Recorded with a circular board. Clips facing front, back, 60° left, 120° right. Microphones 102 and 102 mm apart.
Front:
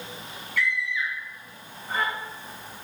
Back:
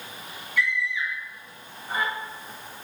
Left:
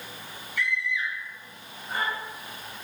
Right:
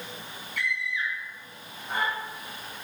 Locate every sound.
0.6 s a scream: 105° right, 3.5 m